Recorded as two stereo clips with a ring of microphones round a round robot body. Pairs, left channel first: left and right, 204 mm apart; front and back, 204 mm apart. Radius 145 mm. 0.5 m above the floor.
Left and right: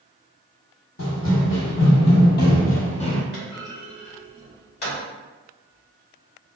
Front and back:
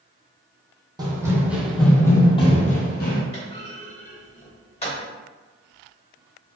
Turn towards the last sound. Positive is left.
turn(degrees=60)